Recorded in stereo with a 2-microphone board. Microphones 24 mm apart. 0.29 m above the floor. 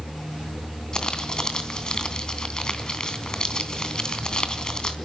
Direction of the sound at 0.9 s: 35° left (ahead or behind).